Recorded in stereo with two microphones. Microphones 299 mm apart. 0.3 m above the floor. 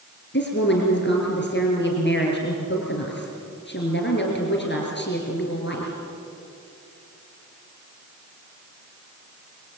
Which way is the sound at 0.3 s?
35° left (ahead or behind).